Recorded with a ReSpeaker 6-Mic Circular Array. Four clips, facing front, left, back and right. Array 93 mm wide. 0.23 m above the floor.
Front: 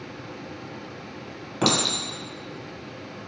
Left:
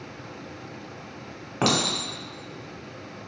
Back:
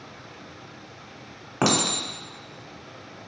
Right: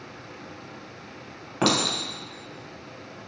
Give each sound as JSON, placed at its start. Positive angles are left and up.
{"t": 1.6, "sound": "a clink", "azimuth_deg": 170, "distance_m": 0.9}